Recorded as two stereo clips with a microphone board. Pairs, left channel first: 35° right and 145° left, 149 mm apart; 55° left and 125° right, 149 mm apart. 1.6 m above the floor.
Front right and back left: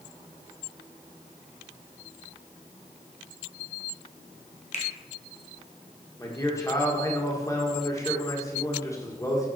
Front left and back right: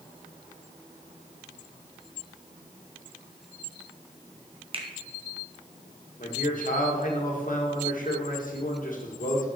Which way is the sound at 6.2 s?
35° left.